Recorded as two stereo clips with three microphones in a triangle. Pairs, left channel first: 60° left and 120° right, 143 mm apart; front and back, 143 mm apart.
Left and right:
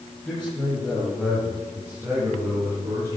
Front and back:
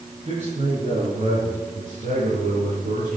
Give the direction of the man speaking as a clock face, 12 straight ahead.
7 o'clock.